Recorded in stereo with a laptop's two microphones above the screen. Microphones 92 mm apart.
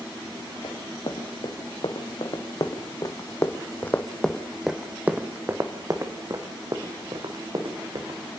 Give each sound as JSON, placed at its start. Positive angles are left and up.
{"t": 0.6, "sound": "running footsteps", "side_deg": 70, "distance_m": 3.5}